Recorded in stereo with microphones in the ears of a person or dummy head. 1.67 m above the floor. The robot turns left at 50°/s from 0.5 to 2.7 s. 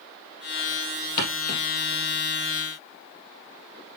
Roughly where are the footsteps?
Left.